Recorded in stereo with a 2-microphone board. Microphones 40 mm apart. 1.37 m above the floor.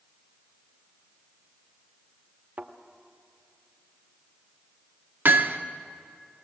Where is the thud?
50° right (ahead or behind), 1.2 m.